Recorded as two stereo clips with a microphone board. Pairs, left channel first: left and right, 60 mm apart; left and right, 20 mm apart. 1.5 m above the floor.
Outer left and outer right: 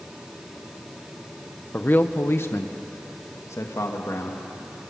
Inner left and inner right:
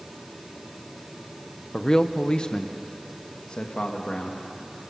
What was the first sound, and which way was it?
A man speaking, 30° left (ahead or behind).